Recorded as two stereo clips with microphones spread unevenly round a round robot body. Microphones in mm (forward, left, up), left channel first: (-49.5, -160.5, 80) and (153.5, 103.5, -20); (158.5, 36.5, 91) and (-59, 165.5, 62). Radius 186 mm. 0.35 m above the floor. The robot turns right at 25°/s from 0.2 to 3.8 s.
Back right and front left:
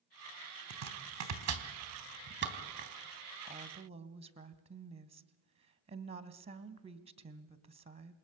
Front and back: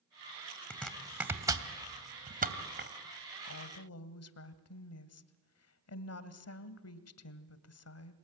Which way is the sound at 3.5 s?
20° right.